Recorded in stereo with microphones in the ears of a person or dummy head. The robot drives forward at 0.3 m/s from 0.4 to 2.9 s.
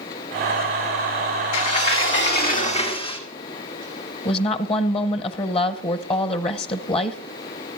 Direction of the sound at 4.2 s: 25° left (ahead or behind).